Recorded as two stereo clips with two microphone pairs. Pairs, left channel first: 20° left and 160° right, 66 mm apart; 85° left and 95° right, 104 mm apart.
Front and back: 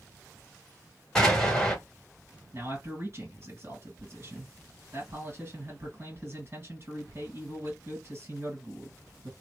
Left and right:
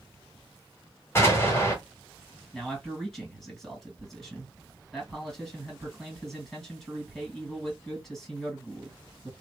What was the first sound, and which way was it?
An explosion, 85° left.